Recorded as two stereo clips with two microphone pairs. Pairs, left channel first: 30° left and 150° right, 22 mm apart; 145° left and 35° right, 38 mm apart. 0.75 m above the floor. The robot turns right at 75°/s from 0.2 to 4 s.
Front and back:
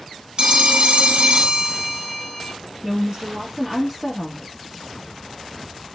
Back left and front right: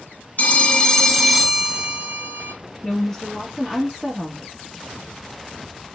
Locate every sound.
0.4 s a phone ringing: 165° left, 0.5 m; by 2.5 s 35° right, 0.5 m
2.8 s a woman speaking: 175° left, 0.8 m; by 4.5 s 95° right, 0.8 m